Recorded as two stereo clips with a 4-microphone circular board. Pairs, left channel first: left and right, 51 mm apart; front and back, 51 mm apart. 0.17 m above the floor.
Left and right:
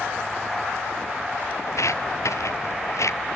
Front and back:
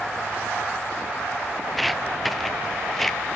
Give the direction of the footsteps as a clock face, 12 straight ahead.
9 o'clock.